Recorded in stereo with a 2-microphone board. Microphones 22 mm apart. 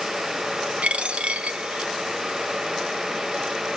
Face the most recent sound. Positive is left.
turn(degrees=-65)  # may be behind; listen again after turning